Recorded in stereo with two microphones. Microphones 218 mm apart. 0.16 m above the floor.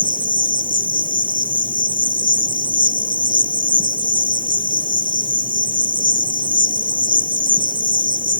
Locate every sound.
0.0 s an insect: 40° right (ahead or behind)